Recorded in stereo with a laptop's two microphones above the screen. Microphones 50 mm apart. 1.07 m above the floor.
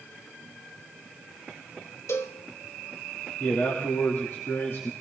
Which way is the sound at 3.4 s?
65° left (ahead or behind).